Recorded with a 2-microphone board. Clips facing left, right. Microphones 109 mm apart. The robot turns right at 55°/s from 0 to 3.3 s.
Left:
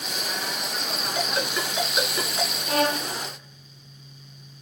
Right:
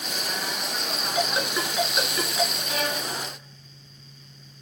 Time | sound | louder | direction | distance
1.1 | a ringtone | right 2 dB | 30° right (ahead or behind) | 2.5 m
2.7 | a violin | left 5 dB | 50° left (ahead or behind) | 0.5 m